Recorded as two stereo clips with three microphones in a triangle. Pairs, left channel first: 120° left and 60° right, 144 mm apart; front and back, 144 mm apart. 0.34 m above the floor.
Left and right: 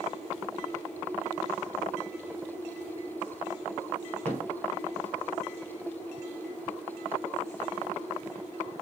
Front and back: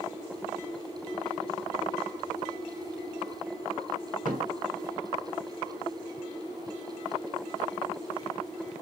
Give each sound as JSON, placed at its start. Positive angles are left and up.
{"t": 4.2, "sound": "a thud", "azimuth_deg": -165, "distance_m": 1.4}